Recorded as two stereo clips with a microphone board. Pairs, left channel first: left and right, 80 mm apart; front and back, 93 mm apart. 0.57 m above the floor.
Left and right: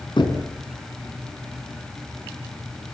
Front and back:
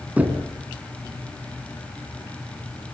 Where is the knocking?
105° left, 4 m.